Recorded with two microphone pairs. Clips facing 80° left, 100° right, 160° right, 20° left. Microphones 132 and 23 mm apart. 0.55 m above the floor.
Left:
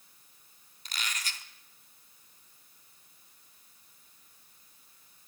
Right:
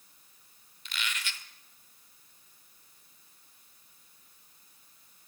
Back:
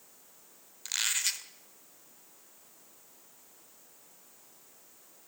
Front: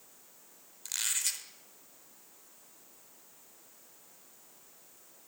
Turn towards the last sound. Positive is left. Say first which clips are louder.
# right 1 dB, back 3 dB
turn(degrees=130)